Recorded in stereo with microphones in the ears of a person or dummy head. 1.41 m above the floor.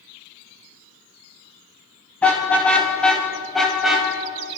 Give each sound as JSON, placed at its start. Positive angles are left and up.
{"t": 2.2, "sound": "a car horn", "side_deg": 10, "distance_m": 3.5}